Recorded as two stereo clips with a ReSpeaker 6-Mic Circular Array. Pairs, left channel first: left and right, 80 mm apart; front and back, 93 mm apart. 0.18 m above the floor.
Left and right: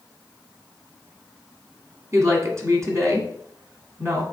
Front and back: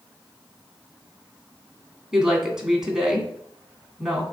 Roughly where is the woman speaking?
Right.